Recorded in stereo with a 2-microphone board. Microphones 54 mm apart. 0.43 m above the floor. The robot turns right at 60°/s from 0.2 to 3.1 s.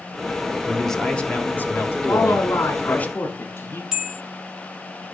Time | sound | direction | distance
0.7 | a man speaking | 5° right | 1.8 m
2.1 | a man speaking | 80° left | 5 m
3.9 | a bell | 10° right (ahead or behind) | 1.4 m